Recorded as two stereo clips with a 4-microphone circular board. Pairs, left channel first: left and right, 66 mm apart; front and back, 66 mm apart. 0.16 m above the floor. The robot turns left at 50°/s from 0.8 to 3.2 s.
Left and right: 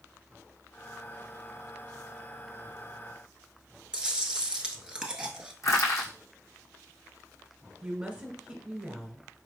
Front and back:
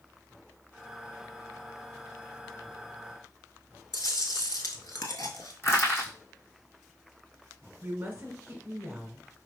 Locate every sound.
3.9 s chewing: 15° right, 0.8 m
5.6 s crushing: 55° left, 2 m
7.8 s a woman speaking: 135° right, 1.1 m